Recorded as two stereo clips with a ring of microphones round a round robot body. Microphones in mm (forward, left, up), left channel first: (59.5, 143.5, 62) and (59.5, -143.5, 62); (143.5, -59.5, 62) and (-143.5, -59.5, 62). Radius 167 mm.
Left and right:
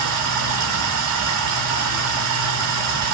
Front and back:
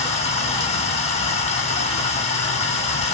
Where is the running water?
70° right, 0.9 m.